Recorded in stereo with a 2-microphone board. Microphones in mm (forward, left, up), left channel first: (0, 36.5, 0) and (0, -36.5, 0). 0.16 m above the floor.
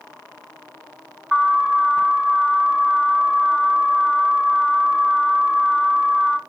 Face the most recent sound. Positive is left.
turn(degrees=-15)  # may be behind; listen again after turning